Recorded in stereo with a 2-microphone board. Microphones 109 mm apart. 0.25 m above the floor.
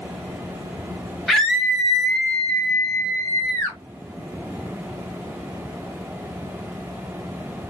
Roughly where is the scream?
Centre.